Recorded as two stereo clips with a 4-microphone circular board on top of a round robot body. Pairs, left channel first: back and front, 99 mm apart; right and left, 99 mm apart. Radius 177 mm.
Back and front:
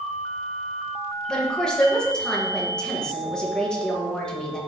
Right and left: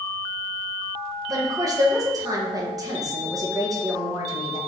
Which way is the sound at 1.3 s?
105° left.